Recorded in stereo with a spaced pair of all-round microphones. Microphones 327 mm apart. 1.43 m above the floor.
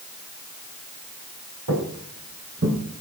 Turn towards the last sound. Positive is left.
turn(degrees=-45)  # may be behind; listen again after turning